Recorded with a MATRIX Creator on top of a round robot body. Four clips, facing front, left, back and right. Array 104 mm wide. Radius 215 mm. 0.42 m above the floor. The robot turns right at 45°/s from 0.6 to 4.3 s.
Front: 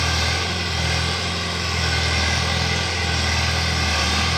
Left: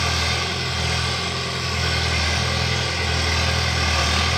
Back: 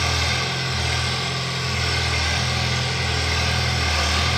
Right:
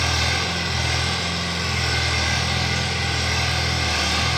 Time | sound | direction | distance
0.0 | an engine running | 90° right | 1.0 m